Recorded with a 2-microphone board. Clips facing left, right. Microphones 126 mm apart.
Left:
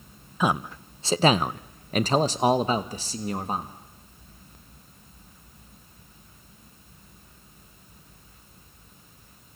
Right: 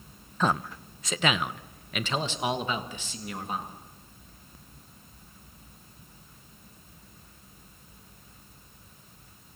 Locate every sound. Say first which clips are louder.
0.4 s a man speaking: left 2 dB; 10° left (ahead or behind), 0.5 m; by 3.7 s 35° left (ahead or behind), 1.5 m